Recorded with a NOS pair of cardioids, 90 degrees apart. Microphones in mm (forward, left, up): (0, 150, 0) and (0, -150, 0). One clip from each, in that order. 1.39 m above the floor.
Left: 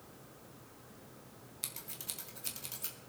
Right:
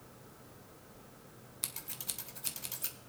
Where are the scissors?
20° right, 1.5 m.